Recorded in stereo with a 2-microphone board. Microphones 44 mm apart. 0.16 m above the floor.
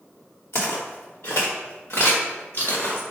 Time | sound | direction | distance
0.5 | footsteps | 70° left (ahead or behind) | 1.0 m